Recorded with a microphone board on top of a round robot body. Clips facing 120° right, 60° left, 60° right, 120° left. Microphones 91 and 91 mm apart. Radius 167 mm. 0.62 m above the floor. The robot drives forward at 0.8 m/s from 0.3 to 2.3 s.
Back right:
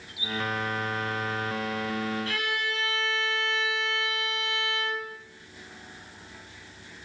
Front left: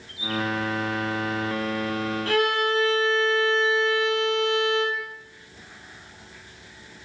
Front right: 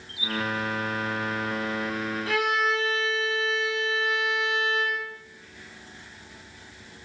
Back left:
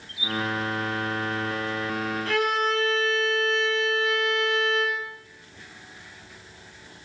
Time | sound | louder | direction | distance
0.1 | a bird | front left 5 dB, back left 1 dB | 165° left | 4.5 m
2.2 | a violin | front left 9 dB, even | 25° left | 4 m